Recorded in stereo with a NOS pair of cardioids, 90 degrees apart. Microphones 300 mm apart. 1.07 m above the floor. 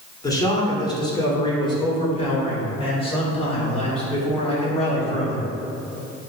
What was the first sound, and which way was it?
A man speaking, 10° left.